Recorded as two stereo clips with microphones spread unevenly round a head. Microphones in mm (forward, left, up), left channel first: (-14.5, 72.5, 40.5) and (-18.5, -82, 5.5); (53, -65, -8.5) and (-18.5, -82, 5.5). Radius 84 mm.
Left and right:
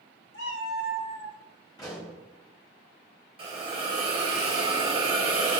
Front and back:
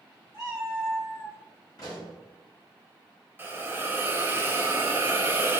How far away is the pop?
About 1.2 m.